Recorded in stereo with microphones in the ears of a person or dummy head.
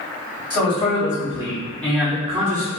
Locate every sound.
0.5 s a man speaking: 25° left (ahead or behind), 2.0 m; by 2.7 s 45° right (ahead or behind), 0.6 m